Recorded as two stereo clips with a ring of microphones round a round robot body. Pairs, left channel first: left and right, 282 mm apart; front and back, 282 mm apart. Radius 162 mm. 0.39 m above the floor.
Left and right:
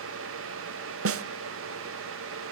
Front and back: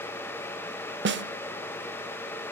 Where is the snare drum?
130° right, 1.2 m.